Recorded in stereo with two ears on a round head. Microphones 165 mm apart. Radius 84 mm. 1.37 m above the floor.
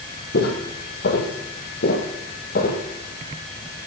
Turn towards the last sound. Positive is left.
turn(degrees=50)  # may be behind; listen again after turning